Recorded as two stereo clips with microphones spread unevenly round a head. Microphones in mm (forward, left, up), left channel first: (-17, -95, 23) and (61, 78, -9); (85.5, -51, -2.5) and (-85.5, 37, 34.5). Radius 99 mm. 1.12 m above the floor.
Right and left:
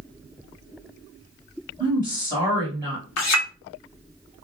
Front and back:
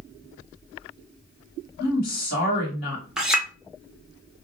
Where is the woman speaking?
5° left, 1.3 m.